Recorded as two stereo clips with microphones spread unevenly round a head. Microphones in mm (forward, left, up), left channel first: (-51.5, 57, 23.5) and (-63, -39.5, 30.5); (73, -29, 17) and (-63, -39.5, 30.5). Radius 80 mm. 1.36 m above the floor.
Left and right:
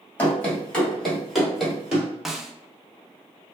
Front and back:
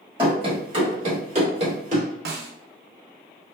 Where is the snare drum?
175° left, 0.6 m.